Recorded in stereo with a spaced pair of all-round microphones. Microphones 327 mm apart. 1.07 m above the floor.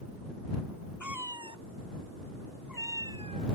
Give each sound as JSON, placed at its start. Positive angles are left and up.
{"t": 1.0, "sound": "a cat meowing", "side_deg": 65}